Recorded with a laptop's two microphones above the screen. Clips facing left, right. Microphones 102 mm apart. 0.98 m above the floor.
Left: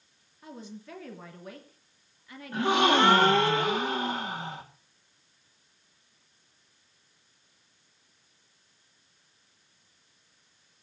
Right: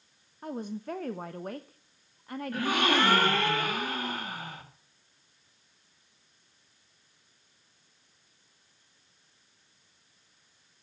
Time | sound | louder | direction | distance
0.4 | a woman speaking | right 8 dB | 50° right (ahead or behind) | 1.0 m
2.5 | a gasp | left 4 dB | 20° left (ahead or behind) | 2.5 m